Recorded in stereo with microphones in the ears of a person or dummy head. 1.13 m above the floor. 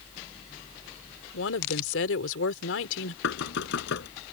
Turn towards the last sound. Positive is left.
turn(degrees=70)  # may be behind; listen again after turning